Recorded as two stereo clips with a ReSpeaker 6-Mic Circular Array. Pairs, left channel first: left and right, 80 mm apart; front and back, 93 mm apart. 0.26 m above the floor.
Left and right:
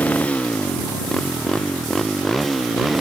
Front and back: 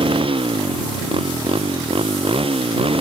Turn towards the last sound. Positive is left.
turn(degrees=-175)